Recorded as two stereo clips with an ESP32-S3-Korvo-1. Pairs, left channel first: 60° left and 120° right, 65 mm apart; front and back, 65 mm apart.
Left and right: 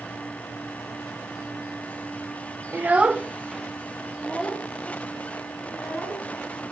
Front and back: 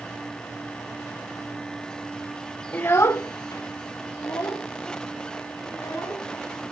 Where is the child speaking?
65° right, 0.6 m; by 6.3 s 20° right, 3.5 m.